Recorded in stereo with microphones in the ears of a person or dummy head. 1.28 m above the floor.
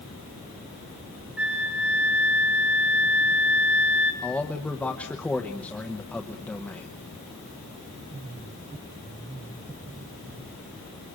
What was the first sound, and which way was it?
A flute, 5° right (ahead or behind).